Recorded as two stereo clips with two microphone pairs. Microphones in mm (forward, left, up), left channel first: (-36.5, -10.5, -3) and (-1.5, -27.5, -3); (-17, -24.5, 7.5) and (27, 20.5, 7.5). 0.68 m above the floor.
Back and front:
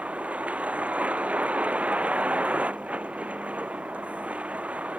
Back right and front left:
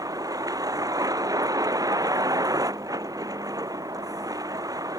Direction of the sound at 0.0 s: 25° left.